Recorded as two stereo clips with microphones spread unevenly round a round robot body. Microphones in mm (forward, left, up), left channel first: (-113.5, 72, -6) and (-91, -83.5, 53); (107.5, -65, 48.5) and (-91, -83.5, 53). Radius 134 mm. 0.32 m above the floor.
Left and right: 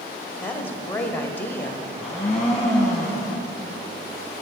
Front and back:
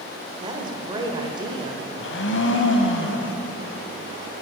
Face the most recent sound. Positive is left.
turn(degrees=20)